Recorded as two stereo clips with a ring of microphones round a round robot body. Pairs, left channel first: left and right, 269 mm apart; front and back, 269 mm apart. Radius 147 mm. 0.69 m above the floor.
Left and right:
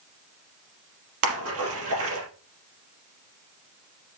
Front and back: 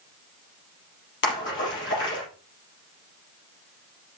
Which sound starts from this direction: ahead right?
A splash, at 1.2 s.